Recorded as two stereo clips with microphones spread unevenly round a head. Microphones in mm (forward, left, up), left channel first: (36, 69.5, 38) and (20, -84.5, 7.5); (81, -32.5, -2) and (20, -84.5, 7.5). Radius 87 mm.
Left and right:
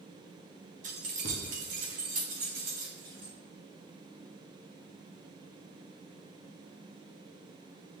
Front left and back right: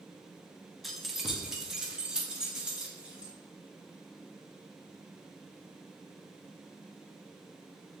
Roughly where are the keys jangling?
Ahead right.